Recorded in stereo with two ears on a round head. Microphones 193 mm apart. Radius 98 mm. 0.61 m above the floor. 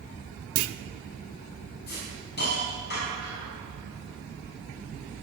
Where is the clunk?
70° right (ahead or behind), 0.7 m.